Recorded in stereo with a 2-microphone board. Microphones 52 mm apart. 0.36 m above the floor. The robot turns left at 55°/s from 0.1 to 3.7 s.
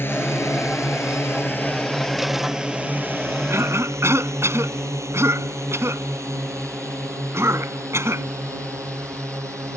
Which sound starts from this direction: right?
A cough, at 3.5 s.